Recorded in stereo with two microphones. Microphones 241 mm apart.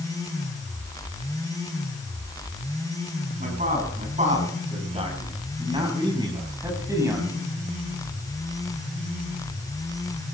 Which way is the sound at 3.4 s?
35° right (ahead or behind).